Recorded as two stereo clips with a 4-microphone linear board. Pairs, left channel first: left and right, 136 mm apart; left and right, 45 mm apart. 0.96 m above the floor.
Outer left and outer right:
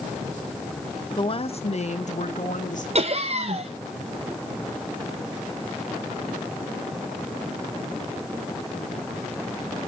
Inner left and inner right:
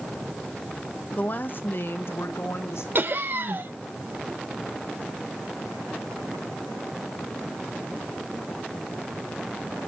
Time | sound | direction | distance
1.2 | a woman speaking | 35° left (ahead or behind) | 0.9 m
3.0 | laughter | 50° right (ahead or behind) | 0.7 m